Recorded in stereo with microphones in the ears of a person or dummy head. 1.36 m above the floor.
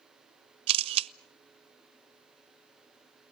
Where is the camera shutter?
30° right (ahead or behind), 0.6 m.